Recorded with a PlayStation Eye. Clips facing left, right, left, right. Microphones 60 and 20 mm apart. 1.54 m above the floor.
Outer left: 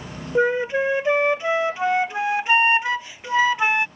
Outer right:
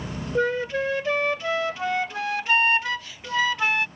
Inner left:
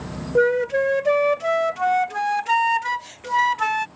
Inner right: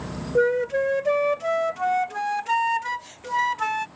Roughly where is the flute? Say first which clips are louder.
Outer left 4 dB, inner left 3 dB; centre.